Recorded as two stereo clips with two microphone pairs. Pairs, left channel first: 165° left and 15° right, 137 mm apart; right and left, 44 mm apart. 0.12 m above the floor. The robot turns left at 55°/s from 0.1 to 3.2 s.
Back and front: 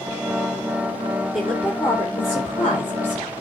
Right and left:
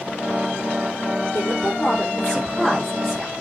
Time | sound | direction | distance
1.3 | a woman speaking | 100° right | 4.5 m